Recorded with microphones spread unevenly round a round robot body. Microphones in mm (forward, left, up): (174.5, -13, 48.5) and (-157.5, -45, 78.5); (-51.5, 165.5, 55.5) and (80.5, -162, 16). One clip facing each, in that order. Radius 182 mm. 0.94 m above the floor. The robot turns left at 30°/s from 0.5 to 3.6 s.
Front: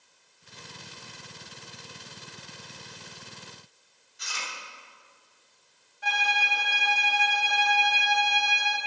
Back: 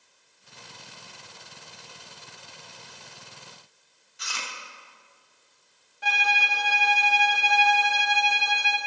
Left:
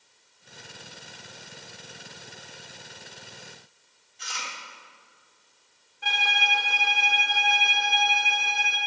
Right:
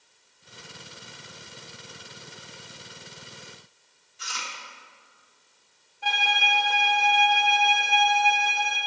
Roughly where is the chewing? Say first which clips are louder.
Back 1 dB, even; behind right.